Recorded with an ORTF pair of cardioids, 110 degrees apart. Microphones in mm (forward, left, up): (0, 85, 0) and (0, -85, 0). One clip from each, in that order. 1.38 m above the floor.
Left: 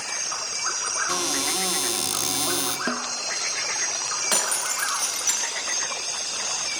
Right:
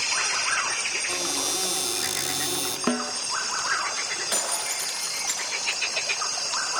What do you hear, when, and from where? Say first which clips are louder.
1.1 s a cupboard door: left 2 dB; 30° left, 4 m
2.9 s a snare drum: right 1 dB; 20° right, 0.6 m
4.3 s breaking glass: left 3 dB; 60° left, 8.5 m